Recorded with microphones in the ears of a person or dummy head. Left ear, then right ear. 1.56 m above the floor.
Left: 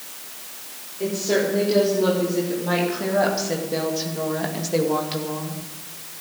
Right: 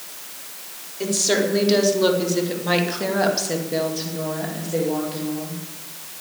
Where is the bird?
I don't hear a bird.